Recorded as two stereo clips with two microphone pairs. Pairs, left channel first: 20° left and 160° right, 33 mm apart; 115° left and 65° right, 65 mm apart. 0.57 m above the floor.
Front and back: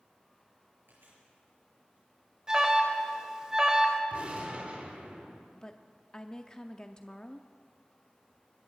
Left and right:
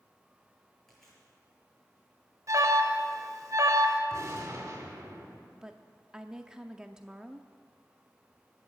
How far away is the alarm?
About 2 m.